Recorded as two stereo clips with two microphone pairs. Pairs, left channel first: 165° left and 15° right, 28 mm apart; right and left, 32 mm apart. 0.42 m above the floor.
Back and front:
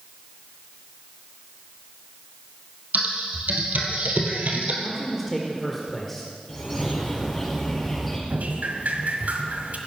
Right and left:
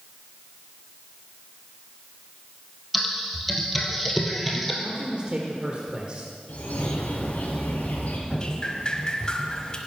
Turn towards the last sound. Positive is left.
turn(degrees=-20)